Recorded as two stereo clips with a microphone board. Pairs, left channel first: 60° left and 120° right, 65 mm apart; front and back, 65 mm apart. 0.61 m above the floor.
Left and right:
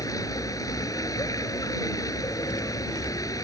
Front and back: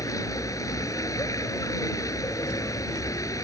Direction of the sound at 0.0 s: 35° left.